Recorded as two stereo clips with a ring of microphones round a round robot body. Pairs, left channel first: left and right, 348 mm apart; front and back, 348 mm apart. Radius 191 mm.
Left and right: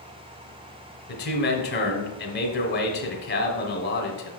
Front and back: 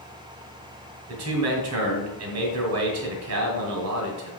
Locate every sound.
1.1 s a man speaking: 145° left, 1.5 m